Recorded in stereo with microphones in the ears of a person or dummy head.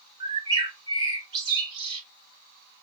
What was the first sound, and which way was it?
A bird, 30° right (ahead or behind).